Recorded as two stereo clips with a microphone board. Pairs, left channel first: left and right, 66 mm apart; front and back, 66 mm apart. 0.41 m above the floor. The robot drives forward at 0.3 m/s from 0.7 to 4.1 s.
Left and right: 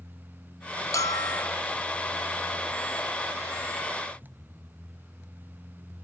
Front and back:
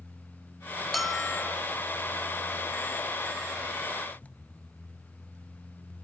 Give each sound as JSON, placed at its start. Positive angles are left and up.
{"t": 0.9, "sound": "a bell", "azimuth_deg": 90, "distance_m": 0.6}